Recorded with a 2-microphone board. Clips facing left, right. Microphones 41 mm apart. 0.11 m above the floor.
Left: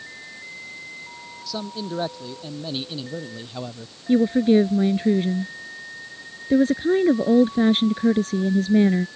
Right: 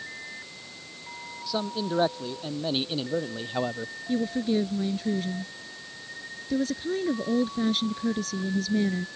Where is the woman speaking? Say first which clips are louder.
Left 10 dB; 40° left (ahead or behind).